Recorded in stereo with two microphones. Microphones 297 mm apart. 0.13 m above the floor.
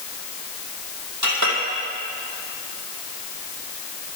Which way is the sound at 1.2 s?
70° right (ahead or behind).